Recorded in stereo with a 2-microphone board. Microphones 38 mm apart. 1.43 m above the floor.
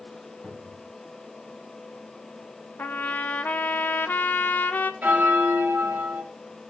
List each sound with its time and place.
0.4 s a cupboard door: 15° left (ahead or behind), 2.5 m
2.8 s a trumpet: 50° left (ahead or behind), 0.6 m
5.0 s a bell: 50° right (ahead or behind), 2 m